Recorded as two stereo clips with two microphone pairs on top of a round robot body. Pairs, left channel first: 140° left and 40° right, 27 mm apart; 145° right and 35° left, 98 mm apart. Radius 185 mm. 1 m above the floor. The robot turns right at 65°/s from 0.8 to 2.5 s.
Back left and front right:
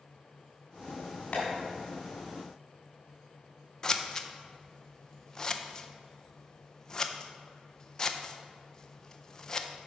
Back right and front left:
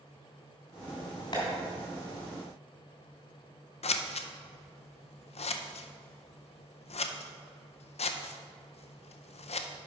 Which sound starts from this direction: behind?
Tapping, at 1.3 s.